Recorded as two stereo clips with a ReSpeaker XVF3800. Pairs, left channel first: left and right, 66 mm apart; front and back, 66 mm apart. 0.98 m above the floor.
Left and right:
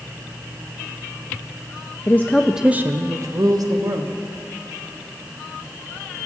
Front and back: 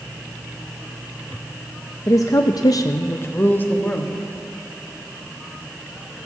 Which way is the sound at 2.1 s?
35° left.